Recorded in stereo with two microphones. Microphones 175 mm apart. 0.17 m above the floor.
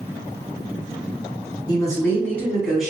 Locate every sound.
1.7 s a woman speaking: 20° left (ahead or behind), 1.6 m; by 2.9 s 5° right (ahead or behind), 1.6 m